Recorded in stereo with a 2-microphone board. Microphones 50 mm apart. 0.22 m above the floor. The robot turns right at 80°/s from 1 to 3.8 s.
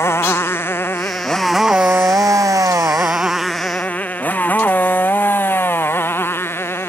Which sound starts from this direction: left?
A motorcycle, at 0.0 s.